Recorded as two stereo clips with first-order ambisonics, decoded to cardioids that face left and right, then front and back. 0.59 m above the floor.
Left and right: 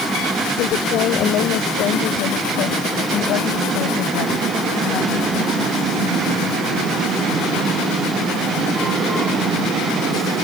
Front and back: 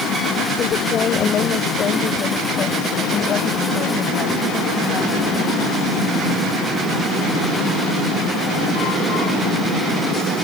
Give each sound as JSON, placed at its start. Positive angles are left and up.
{"t": 0.6, "sound": "a woman speaking", "azimuth_deg": 55}